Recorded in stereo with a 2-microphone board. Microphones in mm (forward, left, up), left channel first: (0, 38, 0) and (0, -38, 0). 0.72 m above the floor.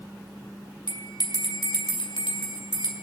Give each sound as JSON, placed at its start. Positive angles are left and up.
{"t": 0.9, "sound": "a bell", "side_deg": 80, "distance_m": 2.5}